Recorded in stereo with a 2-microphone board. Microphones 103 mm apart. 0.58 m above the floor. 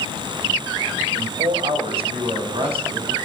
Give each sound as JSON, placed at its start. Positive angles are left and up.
{"t": 1.1, "sound": "a man speaking", "side_deg": -70, "distance_m": 2.5}